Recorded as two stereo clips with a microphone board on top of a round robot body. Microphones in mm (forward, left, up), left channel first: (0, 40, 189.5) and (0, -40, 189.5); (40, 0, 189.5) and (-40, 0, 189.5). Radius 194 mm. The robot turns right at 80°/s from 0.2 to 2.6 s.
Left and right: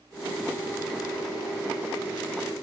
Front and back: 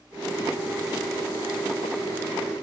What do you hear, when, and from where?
Only background noise.